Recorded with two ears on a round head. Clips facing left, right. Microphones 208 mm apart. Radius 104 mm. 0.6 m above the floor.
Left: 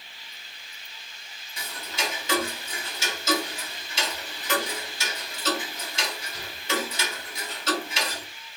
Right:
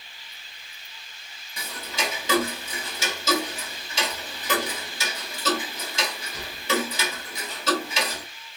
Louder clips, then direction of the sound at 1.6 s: Right 2 dB; 70° right (ahead or behind).